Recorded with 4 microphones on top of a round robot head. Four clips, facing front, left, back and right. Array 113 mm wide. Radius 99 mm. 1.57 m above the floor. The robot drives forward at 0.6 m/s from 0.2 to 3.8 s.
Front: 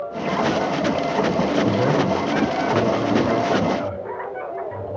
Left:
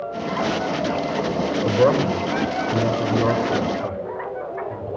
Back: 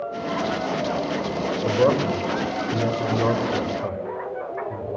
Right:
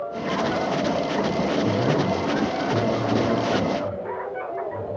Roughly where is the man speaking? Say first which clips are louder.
Left 4 dB, even; behind left.